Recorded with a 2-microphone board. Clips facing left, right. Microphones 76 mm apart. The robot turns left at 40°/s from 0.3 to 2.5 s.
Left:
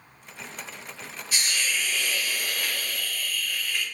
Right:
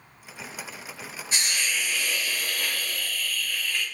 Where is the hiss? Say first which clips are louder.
Even; 150° right, 0.7 m; by 3.9 s 165° left, 0.7 m.